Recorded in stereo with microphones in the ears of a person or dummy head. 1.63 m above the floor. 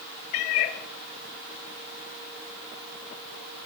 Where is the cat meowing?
50° left (ahead or behind), 1.2 m.